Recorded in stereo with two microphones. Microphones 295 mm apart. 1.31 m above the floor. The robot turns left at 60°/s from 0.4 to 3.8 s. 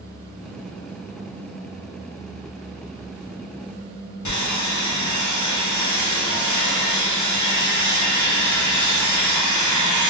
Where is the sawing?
75° left (ahead or behind), 0.6 m.